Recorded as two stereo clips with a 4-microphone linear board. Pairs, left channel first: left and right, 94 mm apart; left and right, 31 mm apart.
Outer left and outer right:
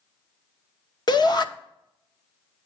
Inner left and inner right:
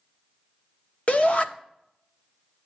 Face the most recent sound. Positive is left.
turn(degrees=50)  # may be behind; listen again after turning